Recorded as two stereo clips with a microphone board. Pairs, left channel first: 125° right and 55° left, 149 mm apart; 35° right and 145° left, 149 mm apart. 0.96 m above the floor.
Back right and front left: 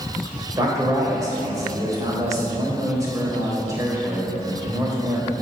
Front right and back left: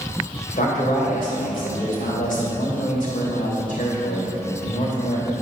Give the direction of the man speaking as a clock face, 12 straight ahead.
12 o'clock.